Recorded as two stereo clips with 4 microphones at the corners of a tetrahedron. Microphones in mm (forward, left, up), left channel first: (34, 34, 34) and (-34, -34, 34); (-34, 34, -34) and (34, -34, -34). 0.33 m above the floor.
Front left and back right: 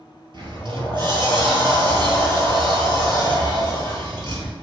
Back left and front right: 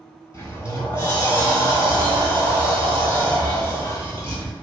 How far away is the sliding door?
About 1.1 m.